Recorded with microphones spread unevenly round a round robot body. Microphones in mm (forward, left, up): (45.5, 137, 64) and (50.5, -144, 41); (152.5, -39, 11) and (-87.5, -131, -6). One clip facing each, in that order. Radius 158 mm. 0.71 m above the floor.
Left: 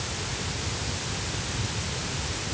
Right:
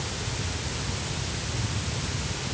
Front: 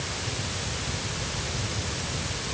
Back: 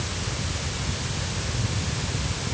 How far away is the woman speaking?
I don't hear a woman speaking.